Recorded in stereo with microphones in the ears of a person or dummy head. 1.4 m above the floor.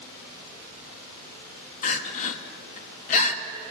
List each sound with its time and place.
1.8 s crying: 45° left (ahead or behind), 1.4 m